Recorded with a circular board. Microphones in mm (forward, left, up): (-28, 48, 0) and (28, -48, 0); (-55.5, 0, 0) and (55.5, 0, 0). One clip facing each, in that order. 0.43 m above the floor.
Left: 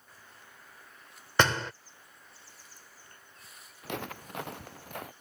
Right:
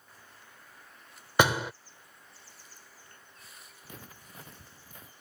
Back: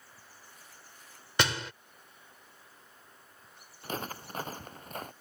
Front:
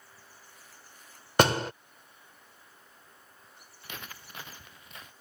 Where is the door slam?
15° left.